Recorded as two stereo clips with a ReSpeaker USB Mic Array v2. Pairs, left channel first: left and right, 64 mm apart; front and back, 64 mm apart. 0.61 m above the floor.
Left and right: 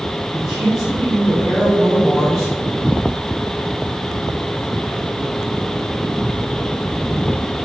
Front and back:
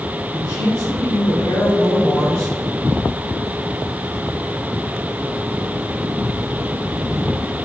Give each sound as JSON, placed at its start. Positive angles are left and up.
{"t": 0.3, "sound": "a man speaking", "azimuth_deg": -5, "distance_m": 2.0}